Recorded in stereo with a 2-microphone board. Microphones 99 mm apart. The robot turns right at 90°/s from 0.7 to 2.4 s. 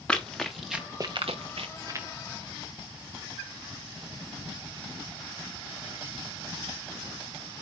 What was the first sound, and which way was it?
Running footsteps, 5° left (ahead or behind).